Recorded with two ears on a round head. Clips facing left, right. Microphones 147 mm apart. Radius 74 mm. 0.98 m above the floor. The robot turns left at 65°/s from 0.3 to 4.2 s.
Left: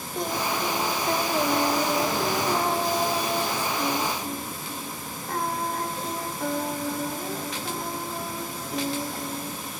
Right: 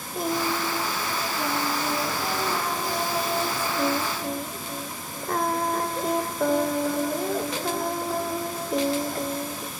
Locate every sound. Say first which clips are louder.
0.1 s singing: right 2 dB; 175° right, 1.0 m; by 9.7 s 70° right, 1.0 m